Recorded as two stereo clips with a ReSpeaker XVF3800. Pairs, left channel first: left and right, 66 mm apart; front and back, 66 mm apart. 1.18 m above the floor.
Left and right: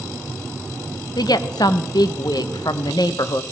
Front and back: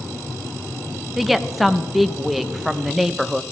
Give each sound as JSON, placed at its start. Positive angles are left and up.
{"t": 1.2, "sound": "a woman speaking", "azimuth_deg": 90, "distance_m": 0.6}